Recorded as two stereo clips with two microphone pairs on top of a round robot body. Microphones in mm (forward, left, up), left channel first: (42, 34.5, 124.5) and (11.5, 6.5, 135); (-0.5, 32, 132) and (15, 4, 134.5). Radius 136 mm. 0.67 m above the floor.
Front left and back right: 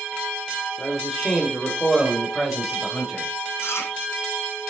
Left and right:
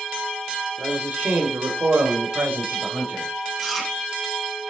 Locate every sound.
0.8 s a man speaking: 45° right, 2.5 m
3.6 s chewing: 20° left, 5 m